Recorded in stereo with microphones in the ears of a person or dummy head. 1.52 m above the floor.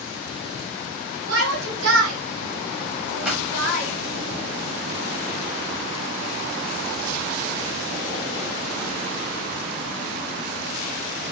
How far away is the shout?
About 3.5 m.